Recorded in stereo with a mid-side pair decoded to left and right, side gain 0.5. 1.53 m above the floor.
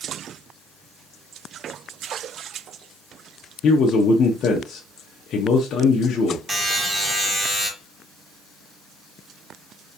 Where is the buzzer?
25° right, 1.4 m.